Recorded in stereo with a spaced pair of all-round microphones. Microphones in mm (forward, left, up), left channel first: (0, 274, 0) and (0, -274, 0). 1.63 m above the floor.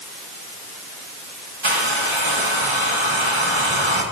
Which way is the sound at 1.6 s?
55° right (ahead or behind).